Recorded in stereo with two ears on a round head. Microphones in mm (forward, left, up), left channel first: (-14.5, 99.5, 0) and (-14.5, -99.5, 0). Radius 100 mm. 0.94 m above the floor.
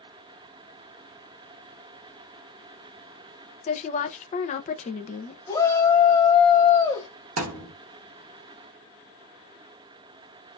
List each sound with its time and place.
3.6 s a woman speaking: 30° left (ahead or behind), 0.5 m
5.5 s a shout: 15° left (ahead or behind), 1.3 m
7.4 s a thud: 65° right (ahead or behind), 1.2 m